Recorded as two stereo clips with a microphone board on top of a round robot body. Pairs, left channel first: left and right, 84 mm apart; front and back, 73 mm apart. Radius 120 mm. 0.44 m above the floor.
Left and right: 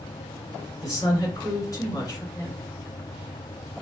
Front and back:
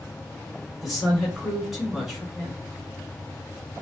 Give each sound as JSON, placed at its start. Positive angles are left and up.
{"t": 0.8, "sound": "a woman speaking", "azimuth_deg": 100, "distance_m": 1.6}